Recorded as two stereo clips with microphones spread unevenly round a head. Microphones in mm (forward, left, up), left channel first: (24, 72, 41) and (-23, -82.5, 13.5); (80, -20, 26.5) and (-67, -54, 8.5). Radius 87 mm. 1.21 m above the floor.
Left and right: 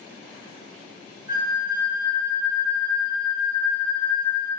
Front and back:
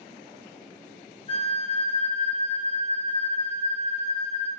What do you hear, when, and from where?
1.3 s a flute: 40° right, 1.0 m